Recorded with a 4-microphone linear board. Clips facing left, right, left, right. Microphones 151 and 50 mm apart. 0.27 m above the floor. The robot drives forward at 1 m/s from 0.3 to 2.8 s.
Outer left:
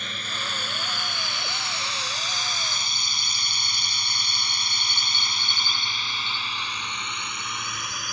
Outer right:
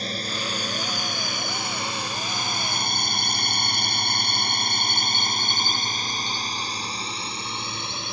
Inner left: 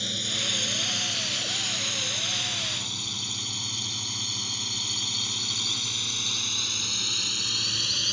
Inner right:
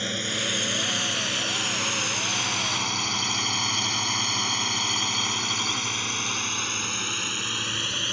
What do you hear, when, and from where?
0.0 s a drone: 35° right (ahead or behind); by 8.1 s 25° right (ahead or behind)